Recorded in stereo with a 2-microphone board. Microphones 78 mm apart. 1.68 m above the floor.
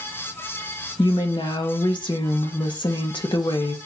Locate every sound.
1.0 s a woman speaking: 80° left, 1.2 m